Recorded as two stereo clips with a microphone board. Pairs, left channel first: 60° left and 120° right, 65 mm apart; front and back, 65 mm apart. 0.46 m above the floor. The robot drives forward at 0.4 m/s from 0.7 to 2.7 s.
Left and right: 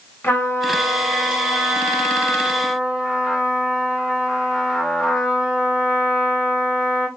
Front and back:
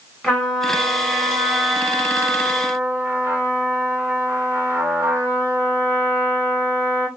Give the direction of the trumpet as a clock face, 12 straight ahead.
9 o'clock.